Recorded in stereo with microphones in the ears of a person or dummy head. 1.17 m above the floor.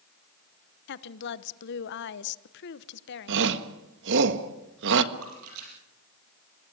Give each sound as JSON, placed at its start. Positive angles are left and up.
{"t": 0.9, "sound": "a woman speaking", "side_deg": 60, "distance_m": 0.9}
{"t": 3.3, "sound": "a shout", "side_deg": -65, "distance_m": 1.6}
{"t": 5.1, "sound": "a splash", "side_deg": -80, "distance_m": 5.5}